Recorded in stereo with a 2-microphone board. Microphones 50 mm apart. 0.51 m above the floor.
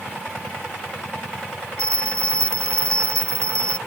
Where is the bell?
70° right (ahead or behind).